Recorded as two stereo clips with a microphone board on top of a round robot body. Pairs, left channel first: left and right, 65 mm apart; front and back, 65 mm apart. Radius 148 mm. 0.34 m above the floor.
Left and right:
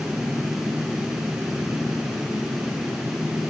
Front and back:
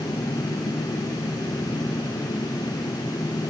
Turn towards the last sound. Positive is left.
No sound to turn to.